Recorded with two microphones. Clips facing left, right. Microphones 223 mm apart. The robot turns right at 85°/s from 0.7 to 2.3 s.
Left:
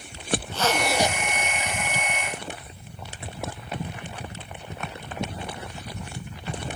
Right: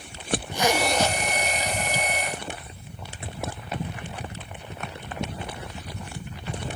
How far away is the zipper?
About 1.0 m.